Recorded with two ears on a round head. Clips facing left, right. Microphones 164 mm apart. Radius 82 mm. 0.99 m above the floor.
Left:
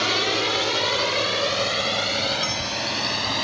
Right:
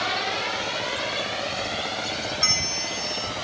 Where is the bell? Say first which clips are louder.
Left 4 dB; 45° right (ahead or behind).